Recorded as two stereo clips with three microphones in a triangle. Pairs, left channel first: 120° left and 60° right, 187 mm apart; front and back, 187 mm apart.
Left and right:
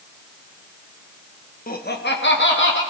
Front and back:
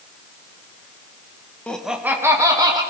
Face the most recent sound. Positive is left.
turn(degrees=110)